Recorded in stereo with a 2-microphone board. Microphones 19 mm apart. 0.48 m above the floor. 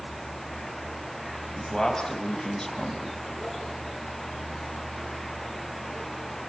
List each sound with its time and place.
1.6 s a man speaking: 20° left (ahead or behind), 4 m